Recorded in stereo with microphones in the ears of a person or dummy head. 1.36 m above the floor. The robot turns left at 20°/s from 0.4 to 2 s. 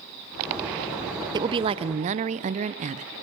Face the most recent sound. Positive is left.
turn(degrees=-40)  # may be behind; listen again after turning